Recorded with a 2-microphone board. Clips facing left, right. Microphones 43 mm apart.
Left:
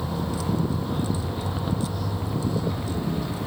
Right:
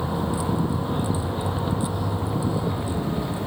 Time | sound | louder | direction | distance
0.0 | a vehicle | right 3 dB | 20° right (ahead or behind) | ?